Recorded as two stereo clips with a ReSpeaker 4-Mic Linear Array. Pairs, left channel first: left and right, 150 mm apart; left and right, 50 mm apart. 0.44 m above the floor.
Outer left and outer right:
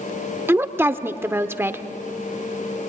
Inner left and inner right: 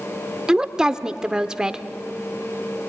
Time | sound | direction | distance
0.5 | a woman speaking | 15° right (ahead or behind) | 0.7 m